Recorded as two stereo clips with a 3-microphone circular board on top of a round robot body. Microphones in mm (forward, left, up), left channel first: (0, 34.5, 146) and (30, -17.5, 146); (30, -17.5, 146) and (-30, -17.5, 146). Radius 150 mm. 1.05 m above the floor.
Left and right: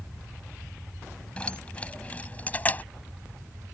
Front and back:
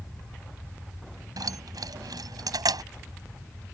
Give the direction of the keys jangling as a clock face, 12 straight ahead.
6 o'clock.